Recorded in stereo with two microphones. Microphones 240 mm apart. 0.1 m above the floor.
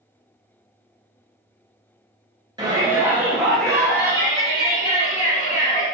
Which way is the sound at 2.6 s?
20° right (ahead or behind).